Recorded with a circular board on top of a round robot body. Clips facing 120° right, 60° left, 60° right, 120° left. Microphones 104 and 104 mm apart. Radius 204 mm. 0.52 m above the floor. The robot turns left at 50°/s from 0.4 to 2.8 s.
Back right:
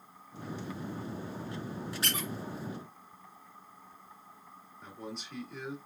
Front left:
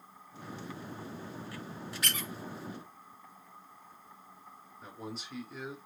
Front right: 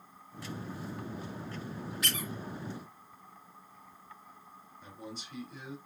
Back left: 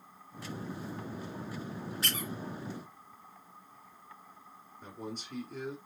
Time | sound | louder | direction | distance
2.0 | a squeak | back right 1 dB, even | straight behind | 1.1 m
4.8 | a man speaking | even, back left 4 dB | 145° left | 1.8 m